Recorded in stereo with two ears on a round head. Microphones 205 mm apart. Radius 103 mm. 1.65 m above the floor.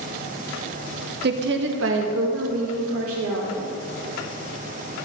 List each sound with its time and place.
1.2 s a woman speaking: 45° right (ahead or behind), 1.1 m; by 3.7 s 65° right (ahead or behind), 4 m